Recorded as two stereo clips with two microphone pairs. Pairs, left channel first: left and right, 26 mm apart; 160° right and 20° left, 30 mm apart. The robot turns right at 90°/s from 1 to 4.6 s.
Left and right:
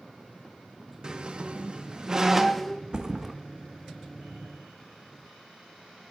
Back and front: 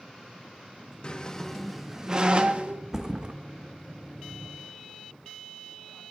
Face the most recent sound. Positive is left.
turn(degrees=100)